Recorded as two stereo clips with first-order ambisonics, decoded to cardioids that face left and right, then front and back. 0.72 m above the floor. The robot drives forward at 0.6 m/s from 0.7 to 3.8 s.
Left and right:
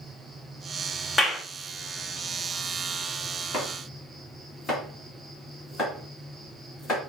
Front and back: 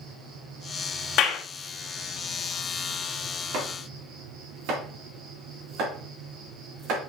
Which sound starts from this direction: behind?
An insect, at 0.0 s.